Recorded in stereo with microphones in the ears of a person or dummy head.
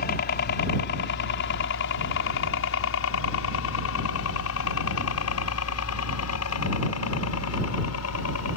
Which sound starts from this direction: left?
A helicopter, at 0.0 s.